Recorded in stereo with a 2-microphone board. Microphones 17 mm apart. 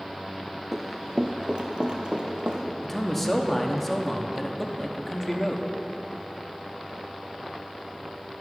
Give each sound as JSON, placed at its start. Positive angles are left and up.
{"t": 0.7, "sound": "running footsteps", "side_deg": -20, "distance_m": 0.7}
{"t": 2.8, "sound": "a man speaking", "side_deg": 10, "distance_m": 0.8}